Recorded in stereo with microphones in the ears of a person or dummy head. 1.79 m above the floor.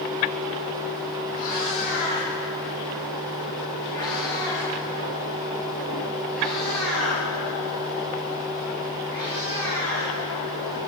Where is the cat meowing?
50° left (ahead or behind), 3 m; by 10.1 s 15° right (ahead or behind), 4.5 m.